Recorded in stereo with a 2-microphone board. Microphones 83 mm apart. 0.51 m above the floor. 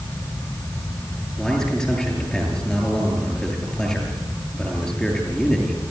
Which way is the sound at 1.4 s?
5° left (ahead or behind).